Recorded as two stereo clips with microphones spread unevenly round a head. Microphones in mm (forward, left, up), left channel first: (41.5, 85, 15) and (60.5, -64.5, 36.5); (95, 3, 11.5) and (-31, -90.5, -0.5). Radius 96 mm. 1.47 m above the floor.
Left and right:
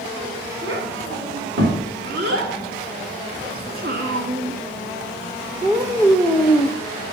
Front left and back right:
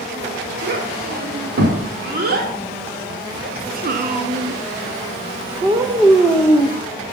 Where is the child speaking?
120° right, 3.5 m; by 6.8 s 35° left, 0.7 m.